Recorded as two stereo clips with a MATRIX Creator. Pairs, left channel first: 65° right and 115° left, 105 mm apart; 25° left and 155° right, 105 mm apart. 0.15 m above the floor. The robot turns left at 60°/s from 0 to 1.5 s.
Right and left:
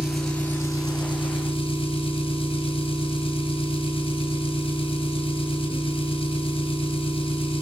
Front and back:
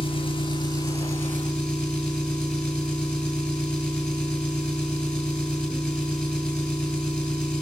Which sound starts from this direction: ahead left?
An engine running, at 0.0 s.